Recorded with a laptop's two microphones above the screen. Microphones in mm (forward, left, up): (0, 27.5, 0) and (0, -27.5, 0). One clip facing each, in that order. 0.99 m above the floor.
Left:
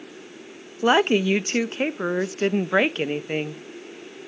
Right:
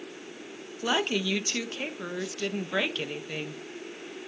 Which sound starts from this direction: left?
A woman speaking, at 0.8 s.